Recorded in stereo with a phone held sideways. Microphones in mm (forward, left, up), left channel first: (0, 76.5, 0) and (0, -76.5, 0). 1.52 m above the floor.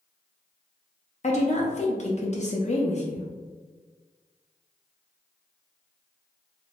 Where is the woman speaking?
50° left (ahead or behind), 0.6 m.